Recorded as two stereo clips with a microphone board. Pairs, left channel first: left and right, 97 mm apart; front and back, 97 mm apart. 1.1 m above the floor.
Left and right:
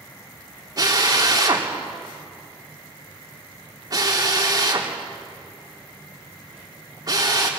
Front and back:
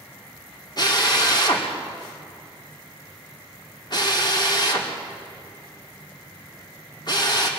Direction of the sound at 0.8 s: 40° right.